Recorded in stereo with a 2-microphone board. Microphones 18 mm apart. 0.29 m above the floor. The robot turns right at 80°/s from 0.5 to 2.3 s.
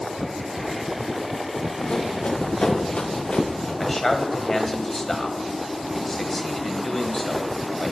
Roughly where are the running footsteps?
Left.